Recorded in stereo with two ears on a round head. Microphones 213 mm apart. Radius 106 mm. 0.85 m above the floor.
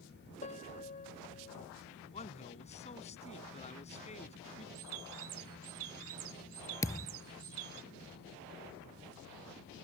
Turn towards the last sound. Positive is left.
turn(degrees=15)  # may be behind; listen again after turning